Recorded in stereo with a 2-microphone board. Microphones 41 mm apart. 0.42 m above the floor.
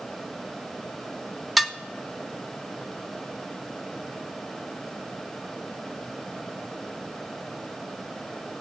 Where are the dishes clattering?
Centre (ahead or behind), 0.5 m.